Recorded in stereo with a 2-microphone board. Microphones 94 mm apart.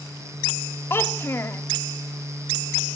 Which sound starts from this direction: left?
A child speaking, at 0.9 s.